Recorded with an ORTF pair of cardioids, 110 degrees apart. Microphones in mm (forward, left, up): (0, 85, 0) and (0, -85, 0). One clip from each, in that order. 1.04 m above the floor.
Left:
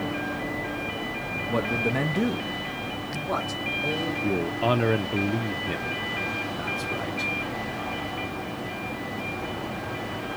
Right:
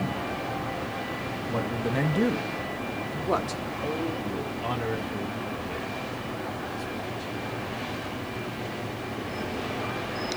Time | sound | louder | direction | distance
1.5 | a man speaking | left 4 dB | 25° left | 0.7 m
4.2 | a man speaking | left 6 dB | 55° left | 0.7 m